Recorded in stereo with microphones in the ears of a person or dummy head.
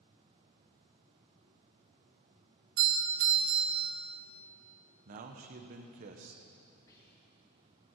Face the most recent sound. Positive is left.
turn(degrees=20)  # may be behind; listen again after turning